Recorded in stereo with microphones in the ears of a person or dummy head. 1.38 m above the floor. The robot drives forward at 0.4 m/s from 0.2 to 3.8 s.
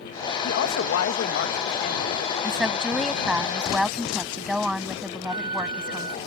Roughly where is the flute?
Right.